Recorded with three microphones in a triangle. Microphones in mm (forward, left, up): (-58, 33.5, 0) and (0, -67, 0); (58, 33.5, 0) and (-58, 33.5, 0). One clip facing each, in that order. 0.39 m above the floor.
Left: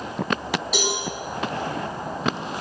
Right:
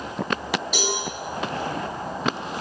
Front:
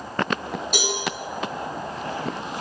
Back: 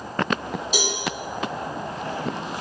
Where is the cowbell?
35° left, 3.5 m.